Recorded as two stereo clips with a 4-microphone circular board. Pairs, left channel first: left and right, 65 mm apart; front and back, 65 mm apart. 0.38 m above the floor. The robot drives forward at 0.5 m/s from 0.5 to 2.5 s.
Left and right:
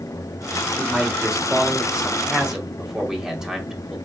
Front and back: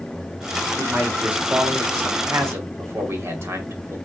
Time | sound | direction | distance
0.8 | a man speaking | 140° right | 1.4 m